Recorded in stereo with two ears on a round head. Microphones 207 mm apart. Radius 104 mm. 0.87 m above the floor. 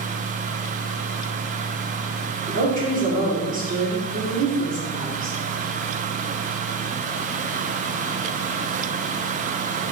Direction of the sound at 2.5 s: 35° right (ahead or behind).